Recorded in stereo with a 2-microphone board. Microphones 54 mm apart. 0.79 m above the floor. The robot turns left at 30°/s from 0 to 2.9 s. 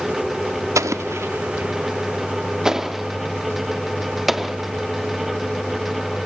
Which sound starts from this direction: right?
An explosion, at 0.8 s.